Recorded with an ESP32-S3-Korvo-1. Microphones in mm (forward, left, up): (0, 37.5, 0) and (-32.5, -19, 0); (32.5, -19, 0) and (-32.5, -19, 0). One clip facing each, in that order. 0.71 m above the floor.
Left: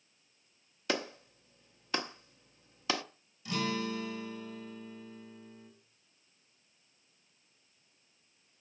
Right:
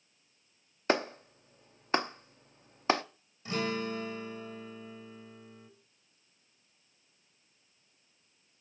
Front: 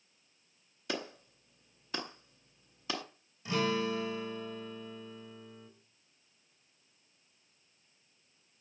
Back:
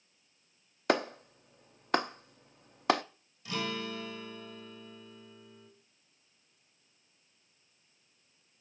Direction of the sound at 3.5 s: 65° right.